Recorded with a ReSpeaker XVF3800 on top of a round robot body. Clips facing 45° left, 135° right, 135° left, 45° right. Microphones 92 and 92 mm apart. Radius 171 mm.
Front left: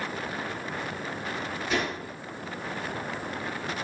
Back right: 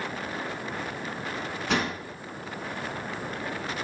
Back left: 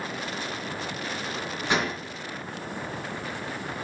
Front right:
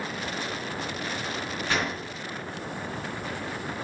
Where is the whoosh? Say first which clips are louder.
Back right 2 dB, back left 2 dB; 155° right, 2.5 m.